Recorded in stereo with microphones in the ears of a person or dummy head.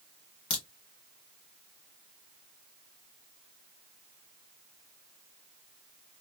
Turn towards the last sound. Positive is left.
turn(degrees=30)  # may be behind; listen again after turning